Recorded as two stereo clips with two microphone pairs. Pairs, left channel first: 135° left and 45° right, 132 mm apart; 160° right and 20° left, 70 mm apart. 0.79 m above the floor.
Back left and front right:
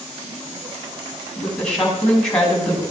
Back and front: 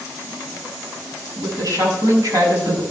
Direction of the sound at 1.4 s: 50° left.